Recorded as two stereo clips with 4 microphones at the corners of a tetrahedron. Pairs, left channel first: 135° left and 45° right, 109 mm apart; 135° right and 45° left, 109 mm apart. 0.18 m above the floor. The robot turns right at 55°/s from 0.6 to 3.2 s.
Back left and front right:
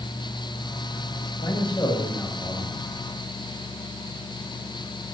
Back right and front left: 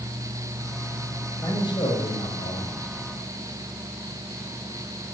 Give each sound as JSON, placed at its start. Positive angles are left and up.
{"t": 1.4, "sound": "a man speaking", "azimuth_deg": 165, "distance_m": 6.5}